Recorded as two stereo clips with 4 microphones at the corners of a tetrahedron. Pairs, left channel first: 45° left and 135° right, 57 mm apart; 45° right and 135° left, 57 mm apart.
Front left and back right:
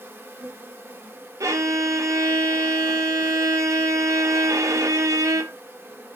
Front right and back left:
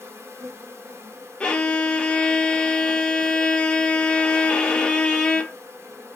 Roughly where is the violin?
Behind right.